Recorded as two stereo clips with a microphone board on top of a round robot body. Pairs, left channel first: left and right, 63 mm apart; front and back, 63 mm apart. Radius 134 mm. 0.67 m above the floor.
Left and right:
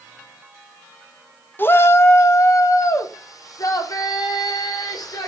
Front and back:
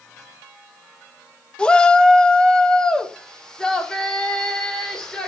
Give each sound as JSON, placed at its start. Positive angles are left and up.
{"t": 1.6, "sound": "a shout", "azimuth_deg": 65, "distance_m": 1.3}